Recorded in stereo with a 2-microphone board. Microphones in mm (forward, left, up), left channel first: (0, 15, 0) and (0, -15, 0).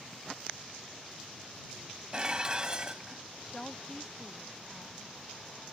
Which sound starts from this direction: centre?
A woman speaking, at 3.5 s.